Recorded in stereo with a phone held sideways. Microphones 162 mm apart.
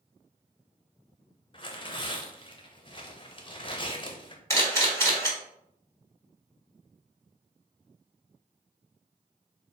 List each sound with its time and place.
1.5 s tearing paper: 35° left (ahead or behind), 0.5 m
4.5 s a camera shutter: 15° left (ahead or behind), 1.3 m